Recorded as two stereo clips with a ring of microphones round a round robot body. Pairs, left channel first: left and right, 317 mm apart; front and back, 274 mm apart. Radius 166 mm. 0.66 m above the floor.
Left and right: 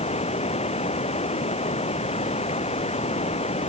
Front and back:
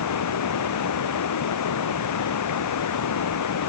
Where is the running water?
20° left.